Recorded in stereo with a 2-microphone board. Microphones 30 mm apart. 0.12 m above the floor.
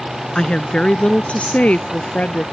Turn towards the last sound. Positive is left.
turn(degrees=60)  # may be behind; listen again after turning